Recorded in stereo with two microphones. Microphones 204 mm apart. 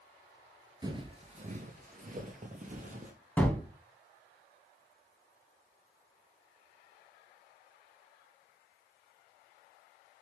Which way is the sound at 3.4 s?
10° left (ahead or behind).